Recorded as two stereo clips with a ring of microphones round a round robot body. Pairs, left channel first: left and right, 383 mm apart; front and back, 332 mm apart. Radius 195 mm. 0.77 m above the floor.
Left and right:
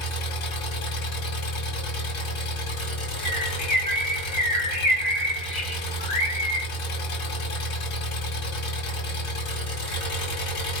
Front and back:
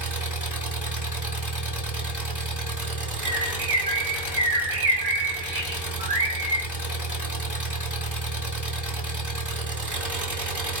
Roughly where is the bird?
Behind.